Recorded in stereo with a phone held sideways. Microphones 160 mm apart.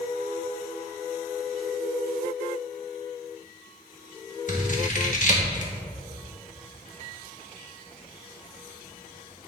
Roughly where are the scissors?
Left.